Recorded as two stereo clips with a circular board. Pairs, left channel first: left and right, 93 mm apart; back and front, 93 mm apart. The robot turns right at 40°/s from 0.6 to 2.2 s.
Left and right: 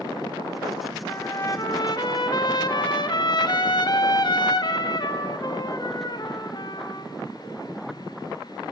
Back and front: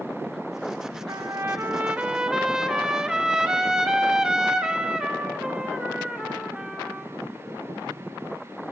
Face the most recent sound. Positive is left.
turn(degrees=80)